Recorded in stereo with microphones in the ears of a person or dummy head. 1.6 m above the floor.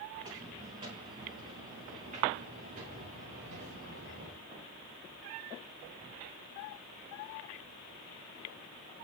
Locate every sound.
0.1 s footsteps: 30° right (ahead or behind), 5.5 m; by 4.5 s 70° right (ahead or behind), 7 m